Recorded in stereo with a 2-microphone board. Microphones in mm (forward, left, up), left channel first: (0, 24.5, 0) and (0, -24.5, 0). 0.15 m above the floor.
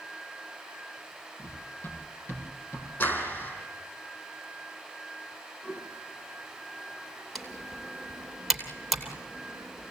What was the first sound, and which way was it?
Running footsteps, 40° left (ahead or behind).